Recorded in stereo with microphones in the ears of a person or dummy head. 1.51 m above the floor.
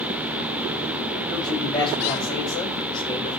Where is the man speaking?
25° left (ahead or behind), 9 m; by 3.4 s 30° left (ahead or behind), 9.5 m.